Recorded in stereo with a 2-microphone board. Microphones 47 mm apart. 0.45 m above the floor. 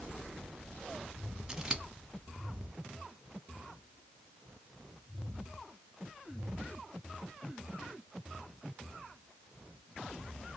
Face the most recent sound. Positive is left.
turn(degrees=-15)  # may be behind; listen again after turning